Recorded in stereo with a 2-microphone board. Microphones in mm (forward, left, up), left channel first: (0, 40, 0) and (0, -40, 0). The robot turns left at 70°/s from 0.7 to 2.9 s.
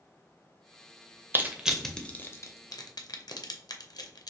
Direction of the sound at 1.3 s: 30° right (ahead or behind).